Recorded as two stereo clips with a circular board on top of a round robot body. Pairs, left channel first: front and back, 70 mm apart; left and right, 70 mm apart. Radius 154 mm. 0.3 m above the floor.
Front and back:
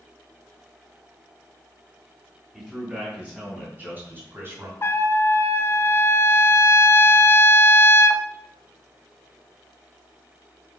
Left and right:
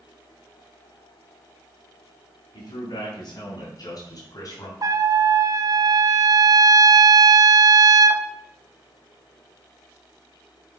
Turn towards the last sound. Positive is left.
turn(degrees=-55)